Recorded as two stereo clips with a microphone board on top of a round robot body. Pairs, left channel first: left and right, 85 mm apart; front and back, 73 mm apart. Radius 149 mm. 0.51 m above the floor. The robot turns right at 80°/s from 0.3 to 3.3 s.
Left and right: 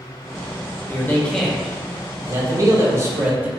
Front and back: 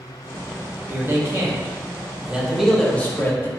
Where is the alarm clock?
No alarm clock in this recording.